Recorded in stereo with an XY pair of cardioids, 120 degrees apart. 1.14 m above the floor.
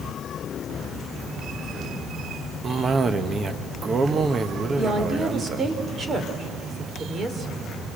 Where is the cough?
30° right, 1.0 m.